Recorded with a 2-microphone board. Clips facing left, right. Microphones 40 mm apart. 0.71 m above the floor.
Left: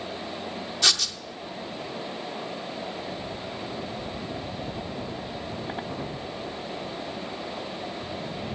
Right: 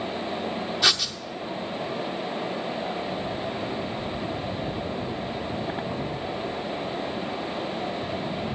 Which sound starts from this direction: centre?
Writing, at 0.8 s.